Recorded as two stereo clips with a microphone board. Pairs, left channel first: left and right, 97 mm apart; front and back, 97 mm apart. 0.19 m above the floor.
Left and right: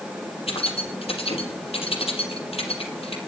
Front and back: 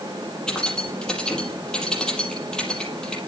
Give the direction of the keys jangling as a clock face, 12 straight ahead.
9 o'clock.